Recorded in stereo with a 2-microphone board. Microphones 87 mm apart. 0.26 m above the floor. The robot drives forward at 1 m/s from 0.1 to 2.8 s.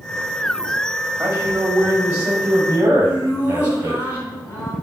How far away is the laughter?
About 2.0 m.